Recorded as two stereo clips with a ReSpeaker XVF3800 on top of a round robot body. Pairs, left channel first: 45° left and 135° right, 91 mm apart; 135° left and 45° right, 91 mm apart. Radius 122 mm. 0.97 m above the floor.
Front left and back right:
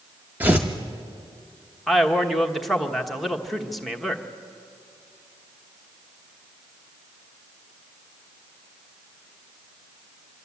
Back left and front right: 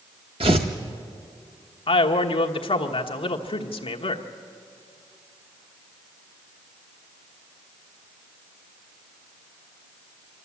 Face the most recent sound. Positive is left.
turn(degrees=135)